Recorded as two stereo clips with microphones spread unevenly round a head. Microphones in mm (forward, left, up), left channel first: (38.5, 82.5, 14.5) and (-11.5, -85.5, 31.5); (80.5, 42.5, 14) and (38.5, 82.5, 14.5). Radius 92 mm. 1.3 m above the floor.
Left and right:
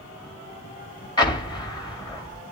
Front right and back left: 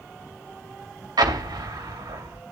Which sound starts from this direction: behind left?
An explosion, at 1.2 s.